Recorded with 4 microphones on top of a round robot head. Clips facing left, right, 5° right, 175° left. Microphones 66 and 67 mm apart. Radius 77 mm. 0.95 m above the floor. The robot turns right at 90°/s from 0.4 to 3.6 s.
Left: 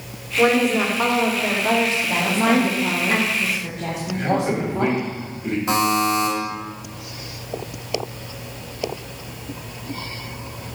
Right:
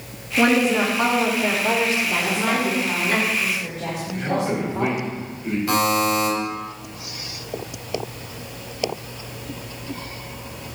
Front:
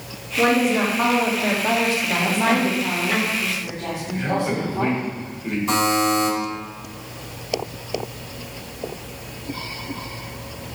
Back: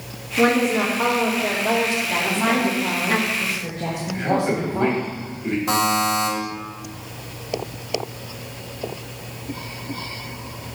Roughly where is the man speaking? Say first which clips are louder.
Left 2 dB, back 2 dB; behind left.